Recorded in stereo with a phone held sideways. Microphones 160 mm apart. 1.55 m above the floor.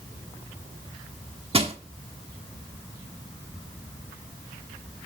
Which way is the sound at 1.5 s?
35° right (ahead or behind).